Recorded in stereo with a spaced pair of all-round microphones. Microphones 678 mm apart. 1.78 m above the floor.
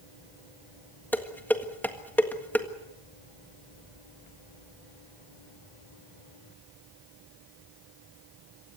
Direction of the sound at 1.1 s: 5° left (ahead or behind).